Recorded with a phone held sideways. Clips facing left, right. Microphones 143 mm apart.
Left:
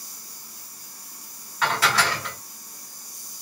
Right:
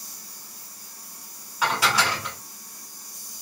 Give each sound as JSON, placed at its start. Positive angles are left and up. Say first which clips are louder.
{"t": 1.6, "sound": "dishes clattering", "louder": "even", "side_deg": -10, "distance_m": 2.5}